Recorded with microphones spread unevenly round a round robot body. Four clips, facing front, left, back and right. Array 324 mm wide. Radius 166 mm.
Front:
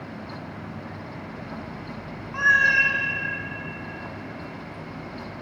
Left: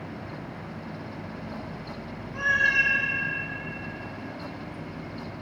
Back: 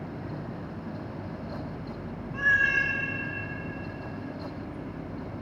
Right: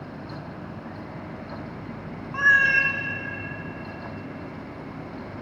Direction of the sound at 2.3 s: 75° right.